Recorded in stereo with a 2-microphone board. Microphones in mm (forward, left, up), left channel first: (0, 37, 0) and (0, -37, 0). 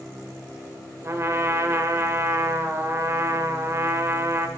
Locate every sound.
1.0 s a trumpet: 40° right (ahead or behind), 0.7 m